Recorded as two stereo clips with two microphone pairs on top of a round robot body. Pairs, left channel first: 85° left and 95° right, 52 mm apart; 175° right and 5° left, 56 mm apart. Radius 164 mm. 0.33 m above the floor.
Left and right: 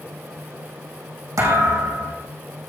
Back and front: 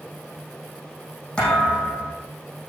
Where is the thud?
105° right, 5.5 m.